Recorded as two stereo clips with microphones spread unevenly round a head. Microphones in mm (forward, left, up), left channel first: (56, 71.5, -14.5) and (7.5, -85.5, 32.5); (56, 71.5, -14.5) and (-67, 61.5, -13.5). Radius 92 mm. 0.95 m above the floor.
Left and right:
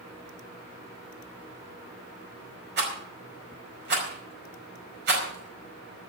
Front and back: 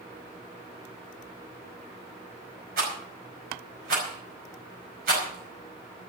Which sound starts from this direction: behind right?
A rattle, at 2.8 s.